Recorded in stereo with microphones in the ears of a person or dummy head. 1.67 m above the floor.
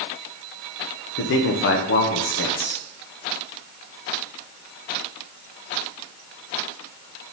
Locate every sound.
1.2 s a man speaking: 55° left (ahead or behind), 0.9 m